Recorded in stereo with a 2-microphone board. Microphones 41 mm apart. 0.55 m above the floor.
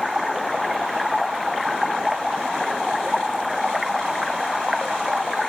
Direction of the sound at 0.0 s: Centre (ahead or behind).